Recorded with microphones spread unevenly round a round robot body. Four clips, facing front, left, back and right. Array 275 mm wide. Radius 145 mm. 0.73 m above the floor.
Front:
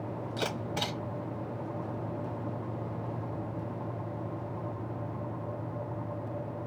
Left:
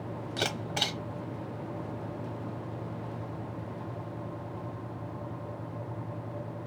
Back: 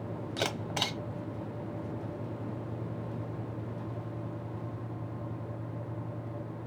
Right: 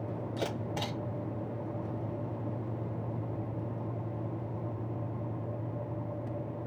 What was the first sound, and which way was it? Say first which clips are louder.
A camera shutter: left 2 dB, even; 140° left.